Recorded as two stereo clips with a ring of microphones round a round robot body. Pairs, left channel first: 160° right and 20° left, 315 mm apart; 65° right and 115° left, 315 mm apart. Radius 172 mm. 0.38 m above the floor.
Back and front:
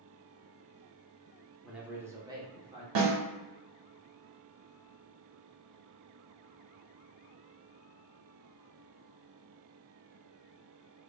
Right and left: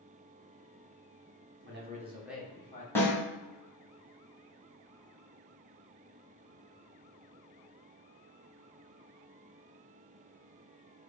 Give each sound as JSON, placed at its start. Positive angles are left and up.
{"t": 1.6, "sound": "a man speaking", "azimuth_deg": 110, "distance_m": 1.0}
{"t": 3.0, "sound": "a snare drum", "azimuth_deg": 15, "distance_m": 1.7}